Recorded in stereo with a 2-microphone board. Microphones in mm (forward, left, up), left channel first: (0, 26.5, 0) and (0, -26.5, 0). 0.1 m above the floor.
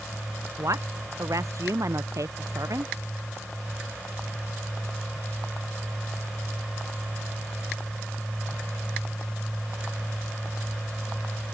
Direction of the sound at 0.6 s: 80° right.